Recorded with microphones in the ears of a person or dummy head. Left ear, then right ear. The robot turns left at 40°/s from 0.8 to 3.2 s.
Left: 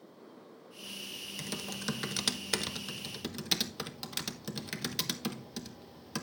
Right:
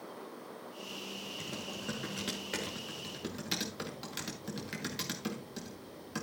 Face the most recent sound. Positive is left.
turn(degrees=25)  # may be behind; listen again after turning